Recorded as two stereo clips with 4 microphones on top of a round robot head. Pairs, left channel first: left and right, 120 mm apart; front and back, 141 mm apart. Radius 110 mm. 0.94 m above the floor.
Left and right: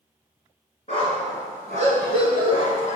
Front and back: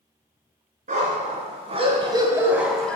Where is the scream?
I don't hear a scream.